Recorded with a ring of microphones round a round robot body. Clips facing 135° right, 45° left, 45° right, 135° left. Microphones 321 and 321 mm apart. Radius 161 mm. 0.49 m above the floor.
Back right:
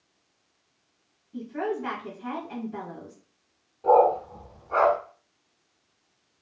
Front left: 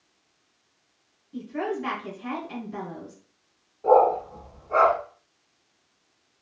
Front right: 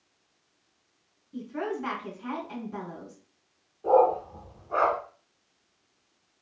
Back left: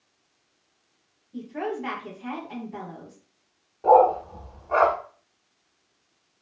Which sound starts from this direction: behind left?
A dog barking, at 3.8 s.